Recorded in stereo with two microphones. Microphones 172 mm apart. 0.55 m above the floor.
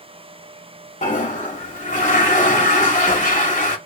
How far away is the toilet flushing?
About 0.7 m.